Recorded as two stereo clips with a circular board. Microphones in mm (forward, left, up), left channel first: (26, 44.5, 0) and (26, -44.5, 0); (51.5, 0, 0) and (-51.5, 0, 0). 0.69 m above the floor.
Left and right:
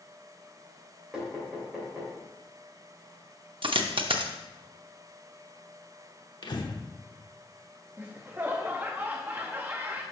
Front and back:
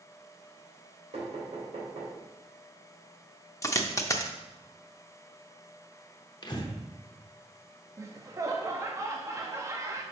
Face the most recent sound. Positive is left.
turn(degrees=-145)